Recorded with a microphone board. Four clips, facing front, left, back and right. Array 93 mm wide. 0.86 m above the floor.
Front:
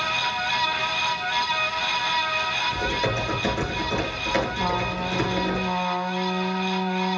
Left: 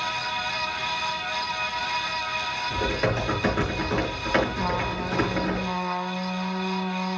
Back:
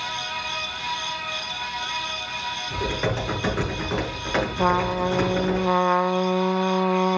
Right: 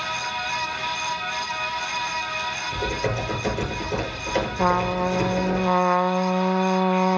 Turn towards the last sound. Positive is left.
turn(degrees=-135)